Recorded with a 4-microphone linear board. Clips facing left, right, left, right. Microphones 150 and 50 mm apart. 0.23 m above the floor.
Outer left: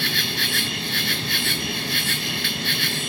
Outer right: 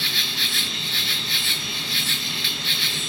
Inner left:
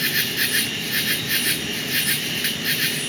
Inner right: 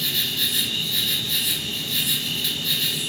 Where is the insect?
60° left (ahead or behind), 1.4 m.